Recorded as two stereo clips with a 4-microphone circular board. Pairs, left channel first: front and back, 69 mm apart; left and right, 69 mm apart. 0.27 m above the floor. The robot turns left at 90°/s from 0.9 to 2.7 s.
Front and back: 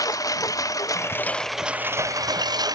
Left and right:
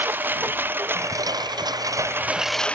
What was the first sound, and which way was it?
A lawn mower, 30° right.